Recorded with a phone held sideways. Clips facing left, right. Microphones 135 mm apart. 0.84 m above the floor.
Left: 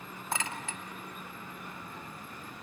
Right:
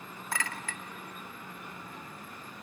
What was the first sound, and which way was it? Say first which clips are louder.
A clink: left 1 dB; 25° left (ahead or behind).